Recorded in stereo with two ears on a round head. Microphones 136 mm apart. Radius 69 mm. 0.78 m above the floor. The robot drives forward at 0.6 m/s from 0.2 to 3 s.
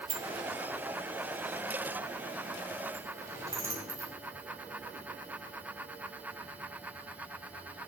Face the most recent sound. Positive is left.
turn(degrees=-20)  # may be behind; listen again after turning